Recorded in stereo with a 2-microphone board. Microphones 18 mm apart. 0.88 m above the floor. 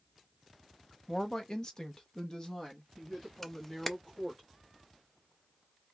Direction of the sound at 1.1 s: 20° left (ahead or behind).